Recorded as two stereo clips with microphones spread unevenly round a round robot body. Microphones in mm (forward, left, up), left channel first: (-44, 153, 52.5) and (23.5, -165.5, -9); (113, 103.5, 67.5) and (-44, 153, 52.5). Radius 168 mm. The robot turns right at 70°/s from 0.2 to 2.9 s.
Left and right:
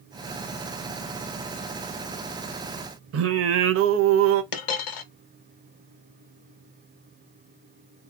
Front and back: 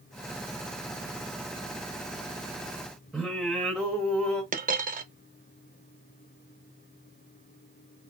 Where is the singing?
110° right, 0.5 m.